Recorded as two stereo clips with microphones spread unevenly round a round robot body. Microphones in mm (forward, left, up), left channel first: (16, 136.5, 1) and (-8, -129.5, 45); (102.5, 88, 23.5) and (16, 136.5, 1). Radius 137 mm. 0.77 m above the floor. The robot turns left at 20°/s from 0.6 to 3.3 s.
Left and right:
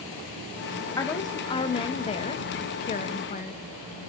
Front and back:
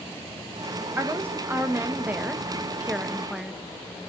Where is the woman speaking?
140° left, 0.8 m; by 3.6 s 90° left, 0.8 m.